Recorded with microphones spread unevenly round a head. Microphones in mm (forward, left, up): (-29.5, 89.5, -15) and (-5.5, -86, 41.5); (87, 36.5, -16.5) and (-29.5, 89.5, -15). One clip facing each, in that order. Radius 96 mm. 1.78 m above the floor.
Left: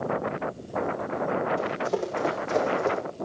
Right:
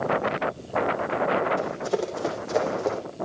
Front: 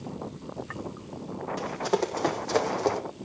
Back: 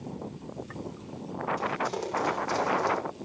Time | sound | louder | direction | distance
1.6 | running footsteps | right 1 dB, front 3 dB | 10° right | 6.5 m